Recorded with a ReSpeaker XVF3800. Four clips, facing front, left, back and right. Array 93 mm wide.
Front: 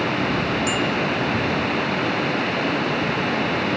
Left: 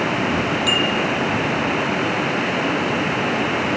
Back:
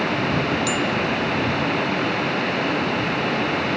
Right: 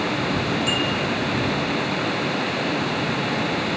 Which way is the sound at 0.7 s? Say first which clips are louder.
Left 3 dB, even; 60° left.